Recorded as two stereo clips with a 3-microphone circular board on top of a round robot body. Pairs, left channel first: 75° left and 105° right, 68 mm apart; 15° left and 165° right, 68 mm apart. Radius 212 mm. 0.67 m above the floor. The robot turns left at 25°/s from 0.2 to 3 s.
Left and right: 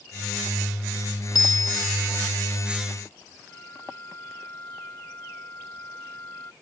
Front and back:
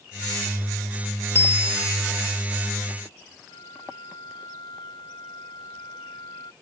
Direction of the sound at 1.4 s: 70° left.